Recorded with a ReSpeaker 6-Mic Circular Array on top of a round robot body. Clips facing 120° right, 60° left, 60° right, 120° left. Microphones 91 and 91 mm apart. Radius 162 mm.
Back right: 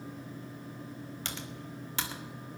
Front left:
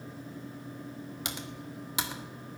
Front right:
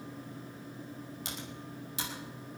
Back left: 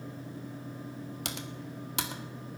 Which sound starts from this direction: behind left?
Typing on a keyboard, at 1.2 s.